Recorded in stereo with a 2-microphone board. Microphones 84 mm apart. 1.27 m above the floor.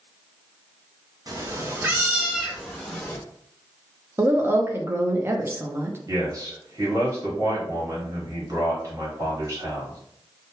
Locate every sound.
1.3 s a cat meowing: 45° right (ahead or behind), 0.6 m; by 3.2 s 15° left (ahead or behind), 0.9 m
4.2 s a woman speaking: 30° right (ahead or behind), 0.6 m
6.1 s a man speaking: 40° right (ahead or behind), 1.5 m